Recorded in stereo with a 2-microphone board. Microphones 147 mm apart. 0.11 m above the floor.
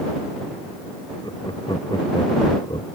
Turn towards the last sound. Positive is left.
turn(degrees=30)  # may be behind; listen again after turning